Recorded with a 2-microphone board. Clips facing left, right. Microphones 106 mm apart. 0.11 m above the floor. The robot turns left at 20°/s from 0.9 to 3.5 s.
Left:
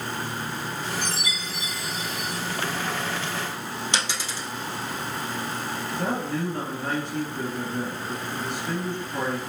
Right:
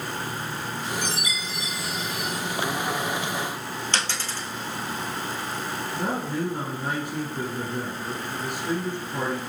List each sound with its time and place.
1.0 s a chime: 60° left (ahead or behind), 2.5 m; by 2.4 s 35° left (ahead or behind), 2.5 m
3.9 s a dropped coin: 15° left (ahead or behind), 1.3 m
5.9 s a man speaking: 10° right (ahead or behind), 2 m